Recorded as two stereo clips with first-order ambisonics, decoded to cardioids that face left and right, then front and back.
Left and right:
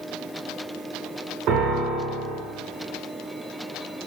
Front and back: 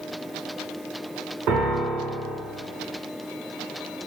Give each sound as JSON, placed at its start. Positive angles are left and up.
{"t": 1.5, "sound": "a piano", "azimuth_deg": -135, "distance_m": 0.6}